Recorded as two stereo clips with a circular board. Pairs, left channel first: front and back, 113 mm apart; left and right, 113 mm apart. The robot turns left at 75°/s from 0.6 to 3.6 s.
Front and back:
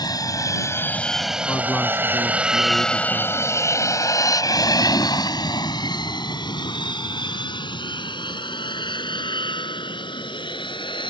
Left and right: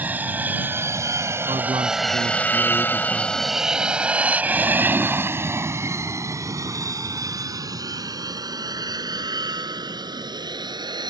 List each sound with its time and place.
0.0 s an aircraft: 25° right; by 11.1 s 40° right
1.5 s a man speaking: 55° right; by 3.6 s 145° left